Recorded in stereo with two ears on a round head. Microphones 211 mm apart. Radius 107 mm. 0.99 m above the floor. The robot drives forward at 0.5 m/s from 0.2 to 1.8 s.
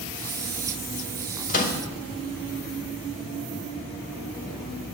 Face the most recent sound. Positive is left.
turn(degrees=35)  # may be behind; listen again after turning